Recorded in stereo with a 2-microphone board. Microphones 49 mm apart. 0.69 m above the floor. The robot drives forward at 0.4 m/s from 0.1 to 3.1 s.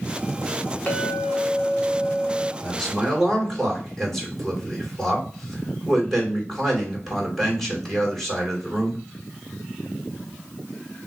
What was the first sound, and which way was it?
A clink, 25° left (ahead or behind).